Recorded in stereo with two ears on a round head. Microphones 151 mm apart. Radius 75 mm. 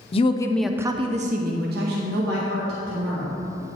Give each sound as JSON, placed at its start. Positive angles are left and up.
{"t": 0.1, "sound": "a woman speaking", "side_deg": 35, "distance_m": 0.7}